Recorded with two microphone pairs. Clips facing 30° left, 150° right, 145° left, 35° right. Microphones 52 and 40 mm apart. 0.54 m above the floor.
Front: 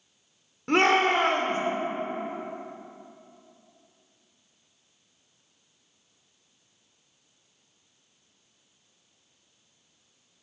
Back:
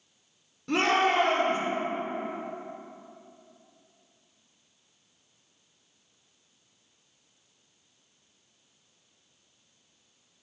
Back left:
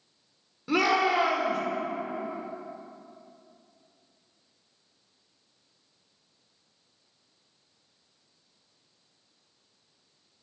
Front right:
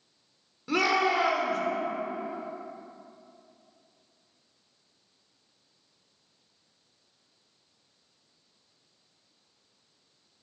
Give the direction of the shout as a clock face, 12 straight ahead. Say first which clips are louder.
Front 3 dB, back left 1 dB; 10 o'clock.